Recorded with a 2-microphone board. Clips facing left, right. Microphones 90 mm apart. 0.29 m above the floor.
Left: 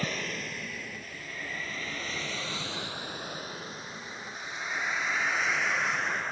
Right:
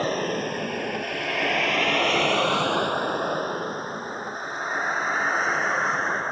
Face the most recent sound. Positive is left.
turn(degrees=-35)  # may be behind; listen again after turning